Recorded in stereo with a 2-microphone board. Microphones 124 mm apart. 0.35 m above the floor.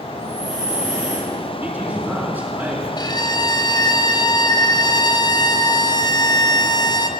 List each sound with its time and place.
0.1 s breathing: 70° right (ahead or behind), 6.5 m
1.6 s a man speaking: 20° right (ahead or behind), 4 m
3.0 s a violin: 35° left (ahead or behind), 1.3 m